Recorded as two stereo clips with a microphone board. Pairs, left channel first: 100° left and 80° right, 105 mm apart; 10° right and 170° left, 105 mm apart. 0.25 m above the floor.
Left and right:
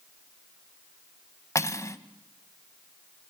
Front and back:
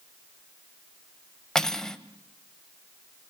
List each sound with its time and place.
1.6 s cutlery clinking: 70° left, 0.9 m